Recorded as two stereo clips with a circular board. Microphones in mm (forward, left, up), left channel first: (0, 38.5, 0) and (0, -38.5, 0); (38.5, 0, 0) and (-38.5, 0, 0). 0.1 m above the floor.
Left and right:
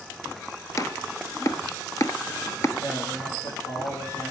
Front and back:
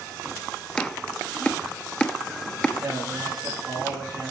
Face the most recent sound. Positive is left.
turn(degrees=110)